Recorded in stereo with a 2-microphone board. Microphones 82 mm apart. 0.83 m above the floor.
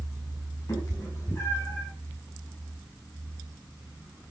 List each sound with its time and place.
0.7 s a cat meowing: 45° left (ahead or behind), 5.5 m; by 1.9 s 30° left (ahead or behind), 6 m